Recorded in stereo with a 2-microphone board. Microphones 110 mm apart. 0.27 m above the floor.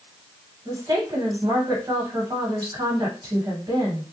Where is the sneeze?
I don't hear a sneeze.